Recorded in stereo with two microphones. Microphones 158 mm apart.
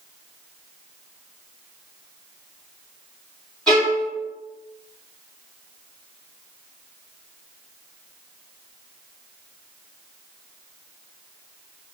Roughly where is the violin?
Centre.